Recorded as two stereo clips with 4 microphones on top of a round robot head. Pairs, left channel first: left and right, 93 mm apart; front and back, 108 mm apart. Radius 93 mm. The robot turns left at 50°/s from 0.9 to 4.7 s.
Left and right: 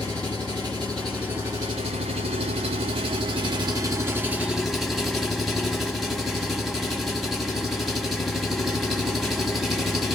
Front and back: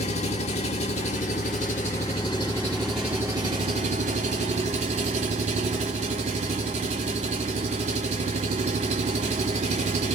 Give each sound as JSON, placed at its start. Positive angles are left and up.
{"t": 0.0, "sound": "an engine running", "azimuth_deg": 10, "distance_m": 1.0}